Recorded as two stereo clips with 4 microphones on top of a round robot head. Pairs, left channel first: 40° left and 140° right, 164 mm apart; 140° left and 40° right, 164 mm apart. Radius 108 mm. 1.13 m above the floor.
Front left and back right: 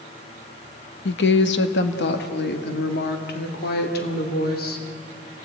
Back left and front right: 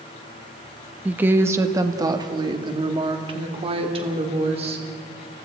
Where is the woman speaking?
40° left, 1.3 m; by 4.8 s 15° left, 3.5 m.